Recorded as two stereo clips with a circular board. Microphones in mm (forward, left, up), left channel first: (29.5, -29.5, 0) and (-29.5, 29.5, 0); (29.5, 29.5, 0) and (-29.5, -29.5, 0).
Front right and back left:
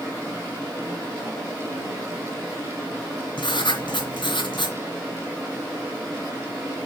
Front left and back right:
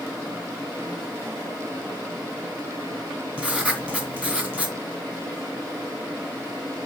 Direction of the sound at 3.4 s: 60° right.